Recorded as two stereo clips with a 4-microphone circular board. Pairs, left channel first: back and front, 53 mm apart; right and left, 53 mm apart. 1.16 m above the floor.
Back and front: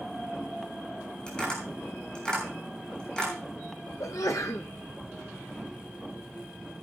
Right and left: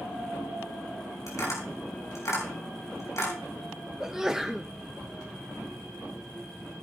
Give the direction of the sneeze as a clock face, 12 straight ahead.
6 o'clock.